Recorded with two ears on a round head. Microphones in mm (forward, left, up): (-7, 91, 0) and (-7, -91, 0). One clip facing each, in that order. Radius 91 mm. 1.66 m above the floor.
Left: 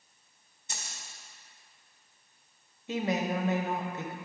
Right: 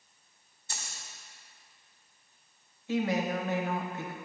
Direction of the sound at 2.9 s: 20° left (ahead or behind).